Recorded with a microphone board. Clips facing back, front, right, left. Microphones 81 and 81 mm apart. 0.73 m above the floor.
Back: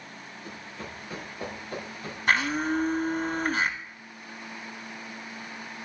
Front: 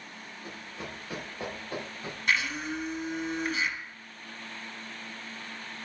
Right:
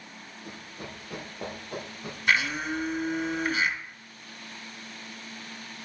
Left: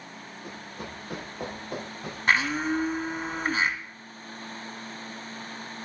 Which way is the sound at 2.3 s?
140° left.